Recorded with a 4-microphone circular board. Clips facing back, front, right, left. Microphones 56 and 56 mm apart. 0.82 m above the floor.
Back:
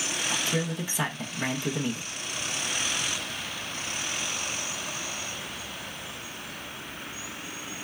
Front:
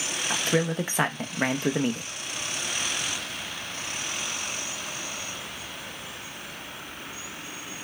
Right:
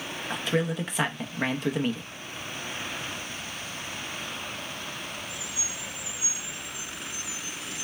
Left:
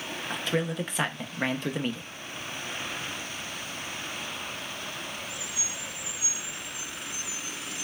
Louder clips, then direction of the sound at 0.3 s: Front 6 dB, right 2 dB; 5° right.